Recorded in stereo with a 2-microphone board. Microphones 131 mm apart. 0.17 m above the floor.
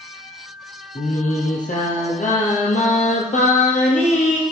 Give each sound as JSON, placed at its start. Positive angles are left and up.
{"t": 0.9, "sound": "singing", "side_deg": 75, "distance_m": 1.8}